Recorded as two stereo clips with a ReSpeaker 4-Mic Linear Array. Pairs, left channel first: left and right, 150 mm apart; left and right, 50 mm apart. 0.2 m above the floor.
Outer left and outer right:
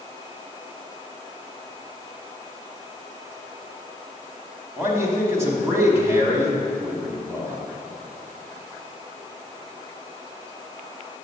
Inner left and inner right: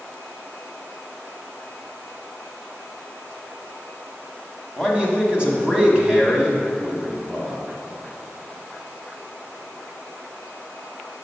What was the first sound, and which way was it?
A man speaking, 20° right (ahead or behind).